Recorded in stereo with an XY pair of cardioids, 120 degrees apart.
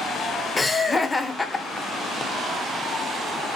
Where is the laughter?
15° left, 0.6 m.